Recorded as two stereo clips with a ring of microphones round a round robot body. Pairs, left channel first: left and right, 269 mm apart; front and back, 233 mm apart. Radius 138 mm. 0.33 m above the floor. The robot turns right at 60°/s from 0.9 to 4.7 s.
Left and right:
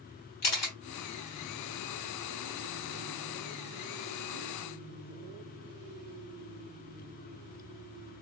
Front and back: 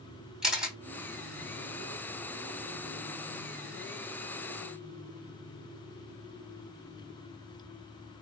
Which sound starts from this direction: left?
A camera shutter, at 0.4 s.